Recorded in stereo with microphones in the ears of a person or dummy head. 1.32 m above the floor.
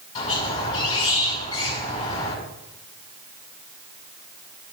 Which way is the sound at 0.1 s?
25° left (ahead or behind).